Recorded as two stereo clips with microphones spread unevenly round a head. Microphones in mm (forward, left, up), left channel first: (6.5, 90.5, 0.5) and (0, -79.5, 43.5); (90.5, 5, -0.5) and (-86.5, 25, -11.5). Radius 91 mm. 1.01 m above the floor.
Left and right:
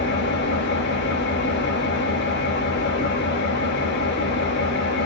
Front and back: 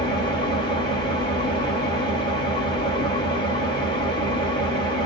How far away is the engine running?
About 2.0 m.